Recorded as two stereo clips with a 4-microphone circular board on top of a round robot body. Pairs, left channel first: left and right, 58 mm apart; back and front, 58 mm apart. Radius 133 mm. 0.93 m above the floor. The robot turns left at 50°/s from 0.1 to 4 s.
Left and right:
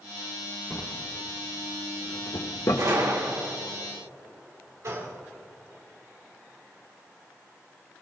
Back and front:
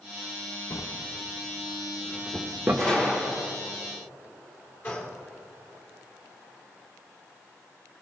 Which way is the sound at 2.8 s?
100° right.